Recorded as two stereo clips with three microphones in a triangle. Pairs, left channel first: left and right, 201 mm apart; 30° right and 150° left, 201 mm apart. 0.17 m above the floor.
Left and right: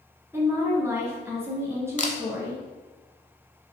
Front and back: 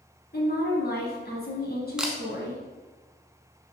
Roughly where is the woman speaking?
Ahead.